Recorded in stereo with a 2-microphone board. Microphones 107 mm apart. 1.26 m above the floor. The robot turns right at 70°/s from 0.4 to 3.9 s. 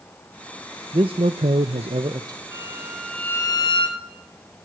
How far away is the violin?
About 3.5 m.